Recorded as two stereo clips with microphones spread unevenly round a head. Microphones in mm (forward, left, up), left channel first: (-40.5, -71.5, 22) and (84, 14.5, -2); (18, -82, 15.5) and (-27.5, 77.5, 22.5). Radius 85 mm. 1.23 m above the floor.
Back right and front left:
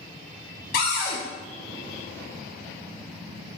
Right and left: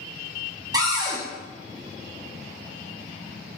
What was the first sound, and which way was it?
A cupboard door, 175° left.